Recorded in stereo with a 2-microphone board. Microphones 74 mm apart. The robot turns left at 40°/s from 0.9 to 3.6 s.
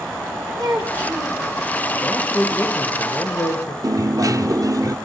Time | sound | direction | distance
0.6 | a child speaking | 60° right (ahead or behind) | 3 m
2.0 | a man speaking | 170° right | 7.5 m
3.8 | a dropped coin | 55° right (ahead or behind) | 0.9 m